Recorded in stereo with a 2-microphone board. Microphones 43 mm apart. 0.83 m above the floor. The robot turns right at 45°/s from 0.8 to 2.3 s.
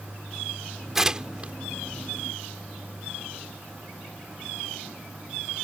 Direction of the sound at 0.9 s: 10° right (ahead or behind).